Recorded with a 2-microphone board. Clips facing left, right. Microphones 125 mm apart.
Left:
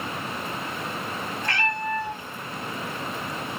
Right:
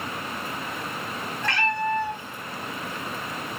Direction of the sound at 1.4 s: 70° right (ahead or behind).